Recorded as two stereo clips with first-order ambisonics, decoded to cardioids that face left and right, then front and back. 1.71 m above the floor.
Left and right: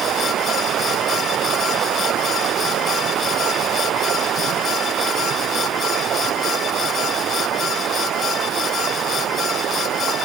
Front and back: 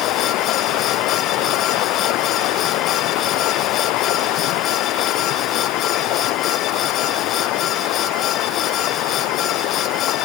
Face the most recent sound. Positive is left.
turn(degrees=-35)